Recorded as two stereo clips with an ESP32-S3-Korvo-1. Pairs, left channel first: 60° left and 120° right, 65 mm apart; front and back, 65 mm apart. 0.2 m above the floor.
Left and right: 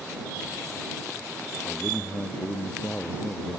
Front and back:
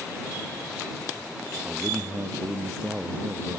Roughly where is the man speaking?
Behind left.